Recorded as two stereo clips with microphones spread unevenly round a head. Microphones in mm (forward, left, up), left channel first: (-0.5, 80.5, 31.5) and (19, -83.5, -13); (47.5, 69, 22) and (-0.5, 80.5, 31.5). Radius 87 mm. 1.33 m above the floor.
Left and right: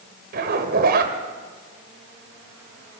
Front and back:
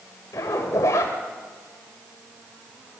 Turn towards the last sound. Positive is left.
turn(degrees=-45)